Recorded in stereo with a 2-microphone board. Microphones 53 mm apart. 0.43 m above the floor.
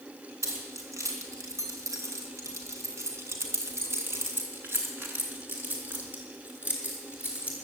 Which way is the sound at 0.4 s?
75° right (ahead or behind).